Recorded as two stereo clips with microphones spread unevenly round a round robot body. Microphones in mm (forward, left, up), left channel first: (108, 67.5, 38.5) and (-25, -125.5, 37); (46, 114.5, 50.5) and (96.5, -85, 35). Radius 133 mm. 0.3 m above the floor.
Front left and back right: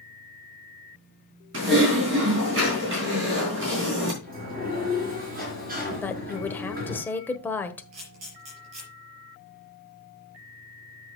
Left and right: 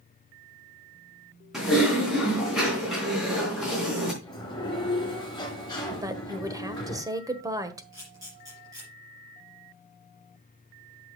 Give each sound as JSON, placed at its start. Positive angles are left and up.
{"t": 1.5, "sound": "typing on a keyboard", "azimuth_deg": -165, "distance_m": 3.5}
{"t": 4.2, "sound": "a sliding door", "azimuth_deg": 180, "distance_m": 2.5}
{"t": 6.0, "sound": "a woman speaking", "azimuth_deg": -20, "distance_m": 1.4}
{"t": 7.9, "sound": "a camera shutter", "azimuth_deg": -150, "distance_m": 4.5}